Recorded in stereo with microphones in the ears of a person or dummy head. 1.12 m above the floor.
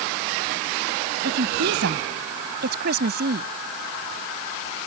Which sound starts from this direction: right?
A woman speaking, at 1.2 s.